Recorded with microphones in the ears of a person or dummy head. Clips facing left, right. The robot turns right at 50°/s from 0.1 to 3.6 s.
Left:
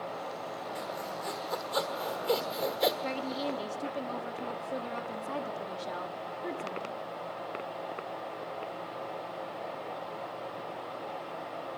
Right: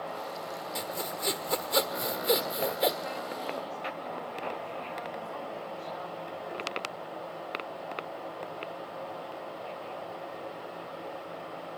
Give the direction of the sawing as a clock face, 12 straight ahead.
4 o'clock.